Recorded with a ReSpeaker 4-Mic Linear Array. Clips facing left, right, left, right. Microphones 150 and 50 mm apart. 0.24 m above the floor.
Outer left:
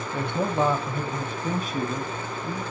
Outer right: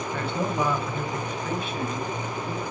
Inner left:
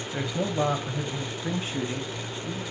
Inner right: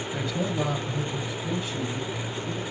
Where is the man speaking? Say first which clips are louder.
Outer left 3 dB, inner left 1 dB; 10° left (ahead or behind), 1.6 m; by 2.6 s 50° left (ahead or behind), 2.5 m.